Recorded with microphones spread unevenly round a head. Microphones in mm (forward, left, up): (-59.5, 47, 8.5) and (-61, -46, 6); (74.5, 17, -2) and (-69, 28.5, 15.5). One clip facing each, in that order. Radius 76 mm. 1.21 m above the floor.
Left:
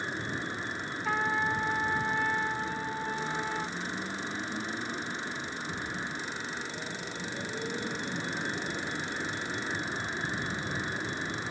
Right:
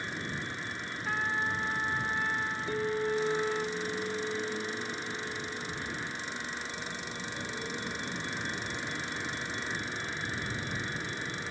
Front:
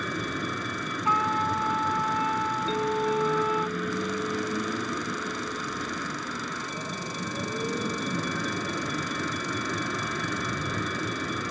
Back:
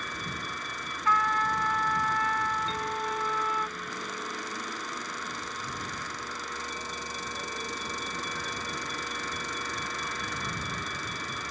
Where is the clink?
30° right.